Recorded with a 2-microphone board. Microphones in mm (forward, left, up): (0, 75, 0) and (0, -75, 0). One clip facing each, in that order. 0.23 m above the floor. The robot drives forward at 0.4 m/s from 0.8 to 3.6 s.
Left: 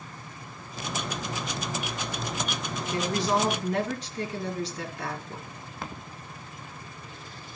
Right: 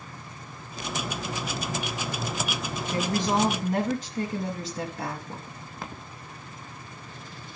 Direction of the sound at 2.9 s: 45° right (ahead or behind).